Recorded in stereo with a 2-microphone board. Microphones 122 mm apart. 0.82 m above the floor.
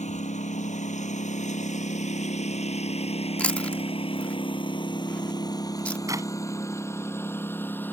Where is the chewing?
10° left (ahead or behind).